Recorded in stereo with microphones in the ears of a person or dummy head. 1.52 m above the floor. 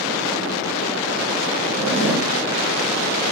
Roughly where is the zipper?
Right.